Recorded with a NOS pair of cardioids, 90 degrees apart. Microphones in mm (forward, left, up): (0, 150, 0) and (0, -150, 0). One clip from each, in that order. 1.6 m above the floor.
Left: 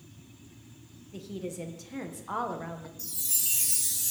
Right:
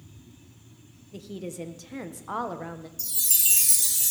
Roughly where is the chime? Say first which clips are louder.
Right 6 dB; ahead right.